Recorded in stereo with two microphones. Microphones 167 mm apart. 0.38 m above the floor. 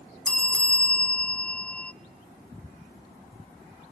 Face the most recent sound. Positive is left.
turn(degrees=5)  # may be behind; listen again after turning